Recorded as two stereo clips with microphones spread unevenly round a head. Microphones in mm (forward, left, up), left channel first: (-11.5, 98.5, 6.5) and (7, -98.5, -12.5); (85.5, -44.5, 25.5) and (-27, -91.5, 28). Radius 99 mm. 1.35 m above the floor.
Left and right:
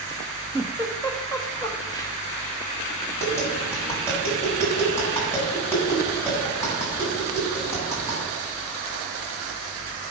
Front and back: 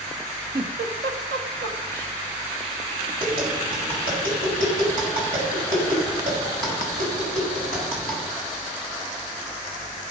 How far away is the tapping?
About 7.5 m.